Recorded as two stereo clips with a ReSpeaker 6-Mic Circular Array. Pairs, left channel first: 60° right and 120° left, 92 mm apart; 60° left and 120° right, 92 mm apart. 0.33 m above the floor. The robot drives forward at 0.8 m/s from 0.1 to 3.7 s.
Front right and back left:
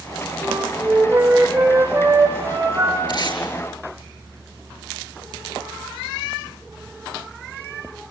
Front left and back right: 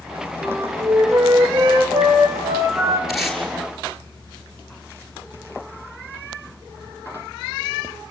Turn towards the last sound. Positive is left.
turn(degrees=-35)